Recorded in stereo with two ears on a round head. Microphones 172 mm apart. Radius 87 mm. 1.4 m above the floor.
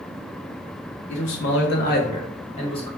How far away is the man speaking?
About 0.8 m.